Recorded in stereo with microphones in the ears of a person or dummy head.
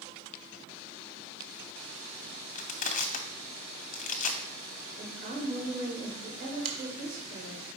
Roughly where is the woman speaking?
Right.